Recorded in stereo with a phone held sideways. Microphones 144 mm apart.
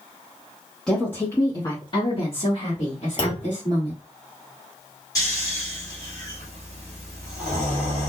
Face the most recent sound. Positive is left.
turn(degrees=25)  # may be behind; listen again after turning